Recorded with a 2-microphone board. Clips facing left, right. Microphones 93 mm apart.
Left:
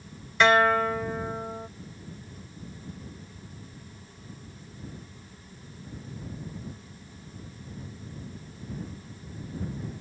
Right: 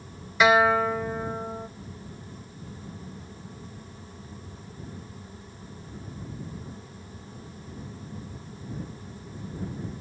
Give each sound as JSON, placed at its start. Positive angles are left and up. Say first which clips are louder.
{"t": 0.4, "sound": "a guitar", "louder": "right 1 dB", "side_deg": -5}